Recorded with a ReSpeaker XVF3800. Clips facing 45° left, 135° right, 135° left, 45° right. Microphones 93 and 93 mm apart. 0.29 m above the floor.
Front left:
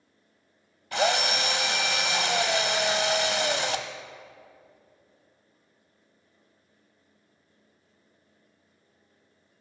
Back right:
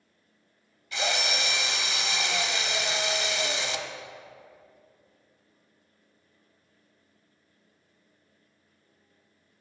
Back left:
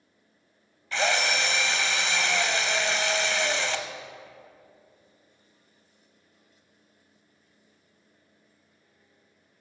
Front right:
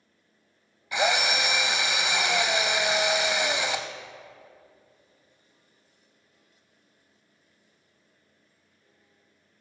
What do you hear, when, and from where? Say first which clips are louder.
0.9 s a drill: front left 5 dB, front right 1 dB; 30° left, 0.6 m